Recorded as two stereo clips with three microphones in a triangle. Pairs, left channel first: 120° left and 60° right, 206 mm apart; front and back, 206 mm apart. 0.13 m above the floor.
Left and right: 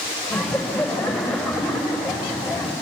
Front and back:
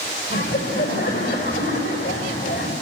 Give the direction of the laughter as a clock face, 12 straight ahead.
11 o'clock.